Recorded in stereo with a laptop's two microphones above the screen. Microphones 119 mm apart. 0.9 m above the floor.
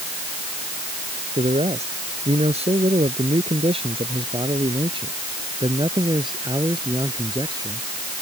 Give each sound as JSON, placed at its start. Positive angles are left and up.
{"t": 1.4, "sound": "a man speaking", "side_deg": -65}